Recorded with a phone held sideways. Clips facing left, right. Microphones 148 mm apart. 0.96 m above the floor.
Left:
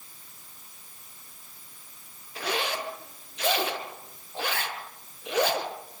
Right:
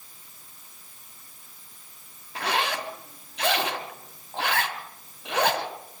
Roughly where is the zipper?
Right.